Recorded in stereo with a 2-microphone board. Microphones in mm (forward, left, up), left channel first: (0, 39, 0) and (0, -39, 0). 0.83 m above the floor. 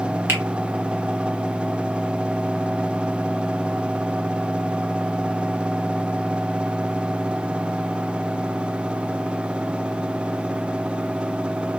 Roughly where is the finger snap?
Right.